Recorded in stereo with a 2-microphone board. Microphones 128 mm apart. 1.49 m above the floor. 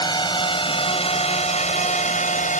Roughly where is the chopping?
I don't hear chopping.